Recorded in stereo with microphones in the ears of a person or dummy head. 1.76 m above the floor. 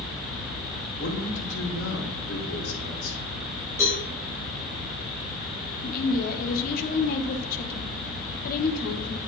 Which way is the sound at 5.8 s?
55° left (ahead or behind).